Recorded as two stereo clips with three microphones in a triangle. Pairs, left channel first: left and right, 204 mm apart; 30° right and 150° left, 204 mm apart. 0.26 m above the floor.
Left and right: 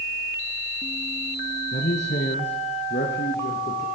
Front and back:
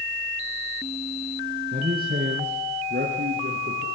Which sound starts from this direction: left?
A man speaking, at 1.7 s.